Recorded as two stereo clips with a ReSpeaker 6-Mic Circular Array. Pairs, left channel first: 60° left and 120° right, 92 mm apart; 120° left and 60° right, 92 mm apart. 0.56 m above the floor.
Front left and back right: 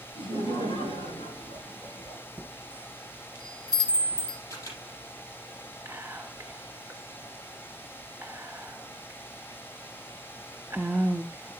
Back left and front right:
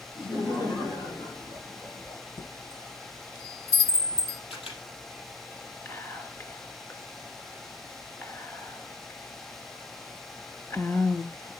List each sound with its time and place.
0.1 s laughter: 90° left, 6 m; by 2.2 s 65° left, 6 m
2.4 s a chime: 160° left, 2.5 m
4.5 s a camera shutter: 115° left, 4.5 m
5.8 s whispering: 175° left, 1.7 m